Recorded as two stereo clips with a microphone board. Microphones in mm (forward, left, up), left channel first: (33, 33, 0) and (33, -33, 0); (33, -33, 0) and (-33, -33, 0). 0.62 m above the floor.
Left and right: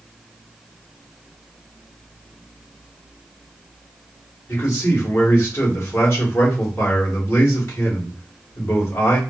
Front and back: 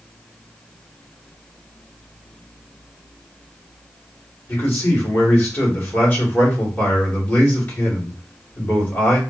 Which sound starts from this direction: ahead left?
A man speaking, at 4.5 s.